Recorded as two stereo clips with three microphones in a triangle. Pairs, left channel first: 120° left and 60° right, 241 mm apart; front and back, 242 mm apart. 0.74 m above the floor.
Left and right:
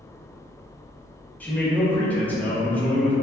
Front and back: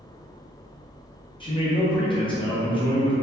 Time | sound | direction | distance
1.4 | a man speaking | 45° left | 0.8 m